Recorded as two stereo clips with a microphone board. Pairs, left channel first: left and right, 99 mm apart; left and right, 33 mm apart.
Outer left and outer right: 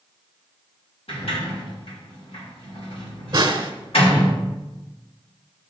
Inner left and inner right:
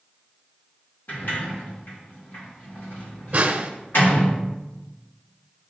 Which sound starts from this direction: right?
A snare drum, at 3.3 s.